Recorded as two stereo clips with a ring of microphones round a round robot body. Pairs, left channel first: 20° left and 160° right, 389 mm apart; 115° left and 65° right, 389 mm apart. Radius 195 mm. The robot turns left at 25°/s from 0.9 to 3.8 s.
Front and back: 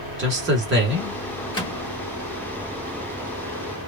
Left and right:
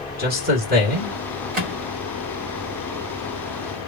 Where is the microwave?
55° right, 1.3 m; by 1.8 s 60° right, 1.3 m.